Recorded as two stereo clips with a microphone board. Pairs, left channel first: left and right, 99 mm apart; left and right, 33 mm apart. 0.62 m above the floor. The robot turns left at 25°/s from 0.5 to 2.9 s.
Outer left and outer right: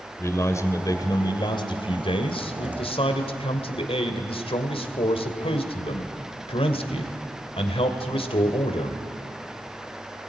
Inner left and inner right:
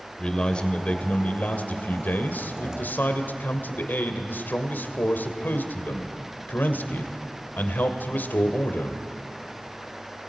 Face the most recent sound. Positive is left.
turn(degrees=90)